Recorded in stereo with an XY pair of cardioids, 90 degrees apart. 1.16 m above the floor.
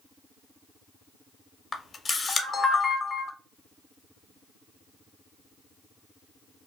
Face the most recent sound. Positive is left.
turn(degrees=35)